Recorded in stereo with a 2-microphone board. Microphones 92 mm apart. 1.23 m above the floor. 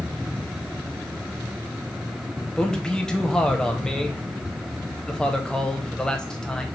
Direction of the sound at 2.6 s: 5° left (ahead or behind).